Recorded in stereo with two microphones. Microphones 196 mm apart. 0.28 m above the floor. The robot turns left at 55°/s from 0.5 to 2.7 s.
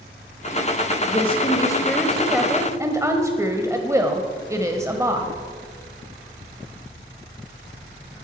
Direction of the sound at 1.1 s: 65° left.